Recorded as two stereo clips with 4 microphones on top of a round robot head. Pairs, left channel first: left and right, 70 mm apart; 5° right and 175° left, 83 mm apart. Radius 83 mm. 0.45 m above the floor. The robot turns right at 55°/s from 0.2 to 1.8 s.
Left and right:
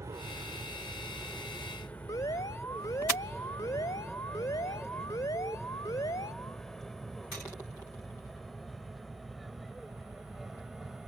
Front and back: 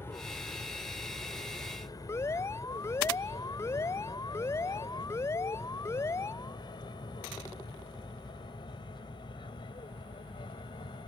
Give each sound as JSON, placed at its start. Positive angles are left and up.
{"t": 0.0, "sound": "an aircraft", "azimuth_deg": -60}
{"t": 2.1, "sound": "an alarm", "azimuth_deg": 50}